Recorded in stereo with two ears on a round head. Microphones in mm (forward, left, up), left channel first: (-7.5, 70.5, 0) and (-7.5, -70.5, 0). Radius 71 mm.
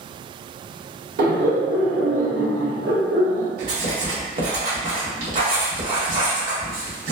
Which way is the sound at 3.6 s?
55° right (ahead or behind).